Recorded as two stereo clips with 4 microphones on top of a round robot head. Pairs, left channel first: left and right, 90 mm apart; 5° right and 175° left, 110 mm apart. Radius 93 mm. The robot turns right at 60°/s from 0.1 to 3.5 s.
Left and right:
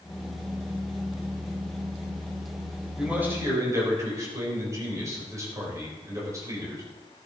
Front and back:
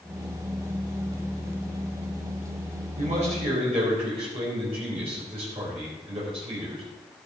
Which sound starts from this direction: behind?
A man speaking, at 3.0 s.